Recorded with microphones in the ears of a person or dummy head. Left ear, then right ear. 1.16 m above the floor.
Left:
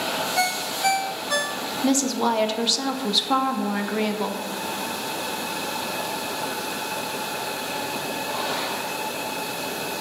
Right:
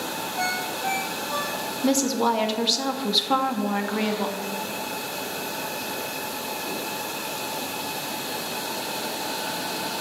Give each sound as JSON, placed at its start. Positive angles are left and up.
{"t": 0.4, "sound": "a ringtone", "side_deg": 75, "distance_m": 0.9}
{"t": 1.8, "sound": "a woman speaking", "side_deg": 5, "distance_m": 0.7}